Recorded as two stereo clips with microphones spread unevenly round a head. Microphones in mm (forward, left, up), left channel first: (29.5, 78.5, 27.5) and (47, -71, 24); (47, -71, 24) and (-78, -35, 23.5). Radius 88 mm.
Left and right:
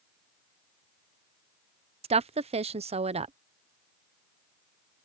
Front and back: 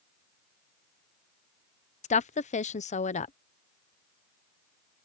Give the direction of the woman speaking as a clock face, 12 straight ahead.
1 o'clock.